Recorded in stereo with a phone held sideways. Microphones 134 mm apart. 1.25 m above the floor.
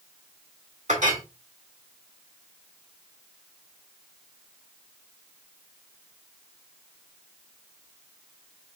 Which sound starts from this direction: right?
A clink, at 0.9 s.